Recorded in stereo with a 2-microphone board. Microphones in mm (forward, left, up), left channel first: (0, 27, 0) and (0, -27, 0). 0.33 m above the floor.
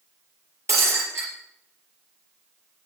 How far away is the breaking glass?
About 5 m.